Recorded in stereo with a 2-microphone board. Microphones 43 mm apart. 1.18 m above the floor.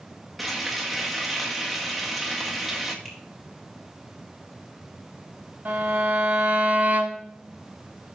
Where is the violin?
50° right (ahead or behind), 3.5 m.